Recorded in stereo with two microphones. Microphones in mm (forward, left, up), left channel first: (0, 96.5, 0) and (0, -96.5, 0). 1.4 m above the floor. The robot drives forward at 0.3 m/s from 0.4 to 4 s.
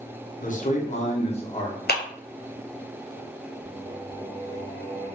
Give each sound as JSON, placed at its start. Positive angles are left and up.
{"t": 0.4, "sound": "a man speaking", "side_deg": 45, "distance_m": 0.8}
{"t": 1.9, "sound": "a clap", "side_deg": 55, "distance_m": 0.6}
{"t": 3.6, "sound": "singing", "side_deg": -45, "distance_m": 2.0}